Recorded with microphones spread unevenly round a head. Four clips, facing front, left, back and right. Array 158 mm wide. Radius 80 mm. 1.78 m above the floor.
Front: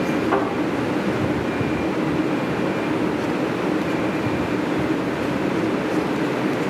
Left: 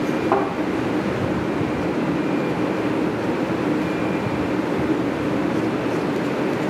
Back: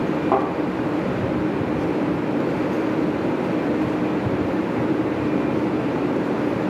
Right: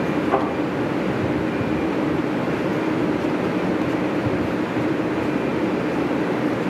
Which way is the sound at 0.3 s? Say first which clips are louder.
Left 2 dB, back 2 dB; 135° left.